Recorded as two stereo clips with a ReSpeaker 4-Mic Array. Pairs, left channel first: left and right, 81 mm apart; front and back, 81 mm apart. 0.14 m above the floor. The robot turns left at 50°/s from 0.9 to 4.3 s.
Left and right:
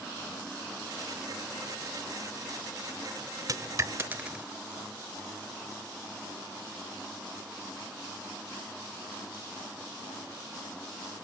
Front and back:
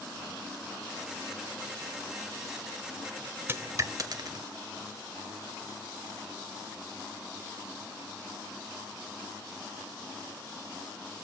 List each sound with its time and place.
3.5 s a dropped coin: 125° right, 1.2 m; by 4.5 s 165° right, 1.2 m